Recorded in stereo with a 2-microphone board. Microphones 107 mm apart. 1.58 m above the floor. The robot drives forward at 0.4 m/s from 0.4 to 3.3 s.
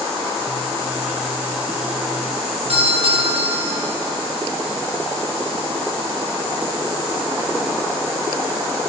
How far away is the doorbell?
About 6.5 m.